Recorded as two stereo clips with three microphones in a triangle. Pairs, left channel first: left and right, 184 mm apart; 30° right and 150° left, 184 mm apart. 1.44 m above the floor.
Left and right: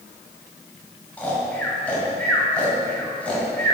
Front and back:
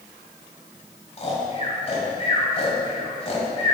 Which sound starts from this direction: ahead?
Snoring, at 1.2 s.